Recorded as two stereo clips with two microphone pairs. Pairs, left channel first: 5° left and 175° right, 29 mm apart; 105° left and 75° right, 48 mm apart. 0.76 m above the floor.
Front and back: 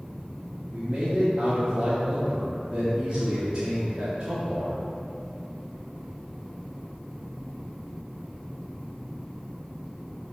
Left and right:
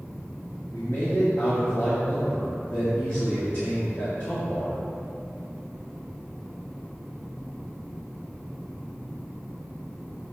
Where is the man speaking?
130° left, 1.6 m.